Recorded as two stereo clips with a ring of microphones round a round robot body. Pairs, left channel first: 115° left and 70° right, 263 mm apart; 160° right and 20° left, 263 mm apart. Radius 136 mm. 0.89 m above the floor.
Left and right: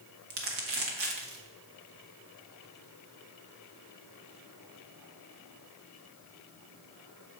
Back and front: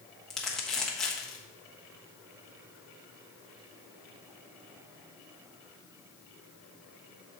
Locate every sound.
0.3 s crumpling: 70° right, 1.2 m